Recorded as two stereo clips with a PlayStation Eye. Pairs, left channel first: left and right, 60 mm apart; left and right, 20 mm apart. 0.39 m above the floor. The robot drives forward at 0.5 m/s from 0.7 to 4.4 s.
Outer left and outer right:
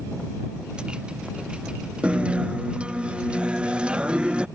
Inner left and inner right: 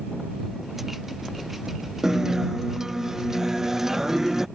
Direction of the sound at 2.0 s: 20° right (ahead or behind).